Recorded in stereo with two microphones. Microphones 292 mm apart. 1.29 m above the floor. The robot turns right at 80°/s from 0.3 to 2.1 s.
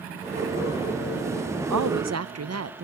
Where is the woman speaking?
90° right, 0.9 m; by 2.8 s 60° right, 0.9 m.